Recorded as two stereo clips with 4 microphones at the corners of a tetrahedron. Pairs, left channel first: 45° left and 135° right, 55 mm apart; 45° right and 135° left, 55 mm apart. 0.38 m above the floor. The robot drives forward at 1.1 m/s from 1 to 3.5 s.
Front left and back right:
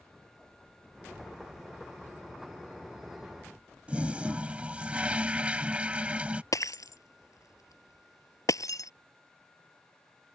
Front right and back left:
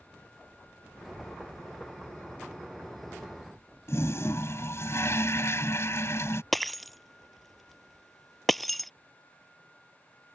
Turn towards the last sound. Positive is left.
turn(degrees=45)